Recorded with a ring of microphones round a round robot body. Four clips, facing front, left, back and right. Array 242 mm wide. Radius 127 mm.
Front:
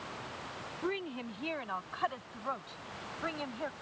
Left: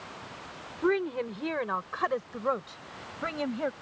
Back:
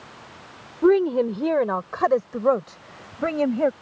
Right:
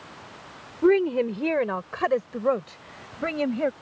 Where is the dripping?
No dripping in this recording.